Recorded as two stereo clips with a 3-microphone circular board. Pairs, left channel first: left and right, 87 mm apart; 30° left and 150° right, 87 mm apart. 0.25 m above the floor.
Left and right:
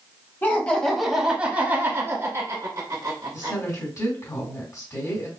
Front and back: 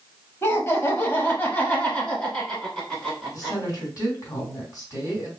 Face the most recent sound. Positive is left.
turn(degrees=60)